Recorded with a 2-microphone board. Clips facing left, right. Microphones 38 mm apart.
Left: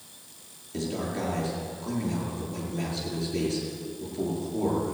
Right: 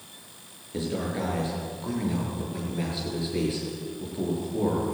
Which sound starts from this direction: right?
A man speaking, at 0.7 s.